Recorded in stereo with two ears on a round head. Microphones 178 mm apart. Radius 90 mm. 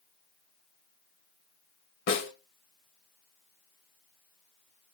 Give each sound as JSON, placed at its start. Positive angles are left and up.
{"t": 2.1, "sound": "a snare drum", "side_deg": 60, "distance_m": 3.0}